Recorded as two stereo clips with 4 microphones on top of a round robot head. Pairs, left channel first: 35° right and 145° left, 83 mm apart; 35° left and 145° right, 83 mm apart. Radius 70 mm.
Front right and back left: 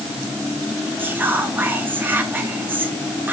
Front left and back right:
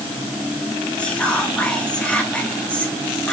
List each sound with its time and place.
1.0 s whispering: 100° left, 0.7 m